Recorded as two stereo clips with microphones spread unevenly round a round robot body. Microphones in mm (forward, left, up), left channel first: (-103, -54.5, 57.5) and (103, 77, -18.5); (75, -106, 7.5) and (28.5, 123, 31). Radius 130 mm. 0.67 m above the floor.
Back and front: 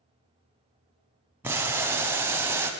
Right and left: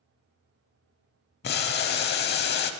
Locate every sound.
1.4 s boiling: 70° right, 0.5 m